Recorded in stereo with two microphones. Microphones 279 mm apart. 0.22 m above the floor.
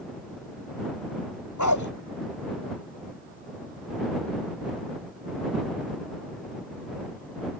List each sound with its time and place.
1.6 s a dog barking: 80° left